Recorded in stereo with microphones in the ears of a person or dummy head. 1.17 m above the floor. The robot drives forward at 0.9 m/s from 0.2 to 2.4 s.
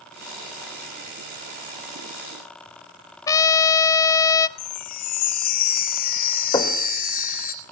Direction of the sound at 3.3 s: 20° left (ahead or behind).